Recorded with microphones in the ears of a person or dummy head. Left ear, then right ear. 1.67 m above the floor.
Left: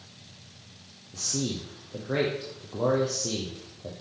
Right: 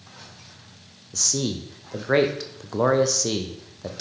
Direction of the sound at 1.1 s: 65° right (ahead or behind).